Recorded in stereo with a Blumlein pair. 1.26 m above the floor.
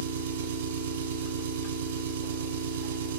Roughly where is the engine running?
Ahead right.